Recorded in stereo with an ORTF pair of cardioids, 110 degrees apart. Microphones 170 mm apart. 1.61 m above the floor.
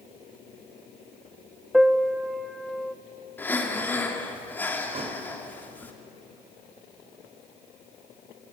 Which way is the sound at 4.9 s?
35° right.